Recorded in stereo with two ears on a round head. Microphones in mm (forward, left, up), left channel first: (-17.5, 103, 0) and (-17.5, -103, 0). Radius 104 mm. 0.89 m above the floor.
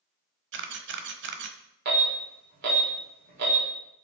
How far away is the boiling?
No boiling in this recording.